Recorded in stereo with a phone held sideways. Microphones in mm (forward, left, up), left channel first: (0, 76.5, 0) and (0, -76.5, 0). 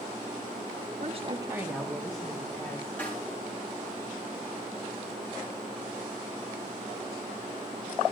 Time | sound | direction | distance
1.0 | a woman speaking | 50° right (ahead or behind) | 1.1 m
3.0 | a snare drum | 10° left (ahead or behind) | 7 m